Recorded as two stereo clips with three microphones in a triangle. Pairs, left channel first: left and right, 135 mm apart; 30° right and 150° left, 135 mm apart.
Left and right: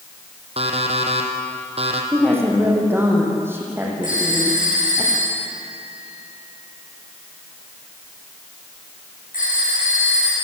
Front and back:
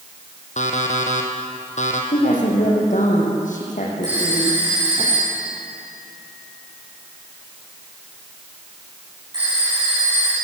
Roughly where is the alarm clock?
Ahead right.